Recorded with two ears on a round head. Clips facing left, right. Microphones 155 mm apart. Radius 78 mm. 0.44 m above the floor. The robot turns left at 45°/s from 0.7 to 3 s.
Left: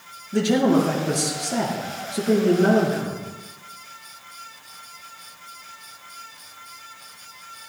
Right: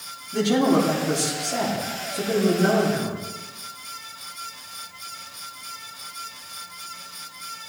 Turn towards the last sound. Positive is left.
turn(degrees=45)